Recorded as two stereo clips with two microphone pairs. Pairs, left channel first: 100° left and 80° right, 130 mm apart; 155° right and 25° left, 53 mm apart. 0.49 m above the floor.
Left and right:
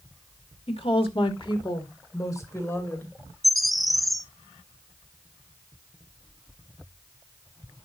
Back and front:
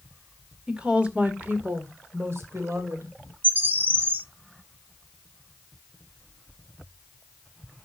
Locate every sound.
0.7 s a woman speaking: 95° left, 1.8 m; by 3.1 s 25° left, 3 m
3.4 s a bird: 5° left, 0.7 m